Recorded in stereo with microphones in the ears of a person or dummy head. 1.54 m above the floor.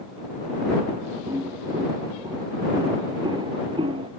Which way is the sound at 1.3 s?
15° right (ahead or behind).